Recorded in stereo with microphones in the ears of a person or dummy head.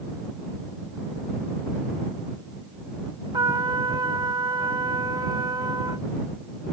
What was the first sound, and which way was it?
A trumpet, 20° right (ahead or behind).